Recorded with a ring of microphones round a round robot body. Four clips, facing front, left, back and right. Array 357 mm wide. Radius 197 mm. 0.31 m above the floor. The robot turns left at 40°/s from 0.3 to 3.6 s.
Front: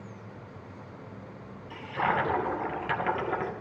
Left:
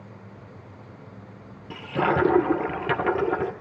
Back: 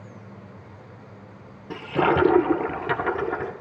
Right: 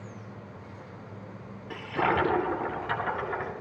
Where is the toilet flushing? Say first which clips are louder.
Left 3 dB, back 7 dB; 160° left, 1.5 m; by 3.5 s 90° left, 1.5 m.